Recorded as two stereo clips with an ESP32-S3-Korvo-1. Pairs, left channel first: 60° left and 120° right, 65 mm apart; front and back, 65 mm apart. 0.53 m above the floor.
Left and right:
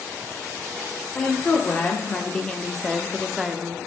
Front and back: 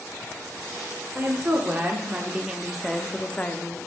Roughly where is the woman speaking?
Behind left.